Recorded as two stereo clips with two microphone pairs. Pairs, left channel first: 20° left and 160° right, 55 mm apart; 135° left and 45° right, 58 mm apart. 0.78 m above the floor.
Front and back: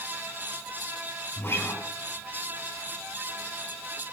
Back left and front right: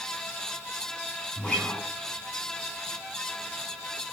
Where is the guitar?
65° left, 4 m.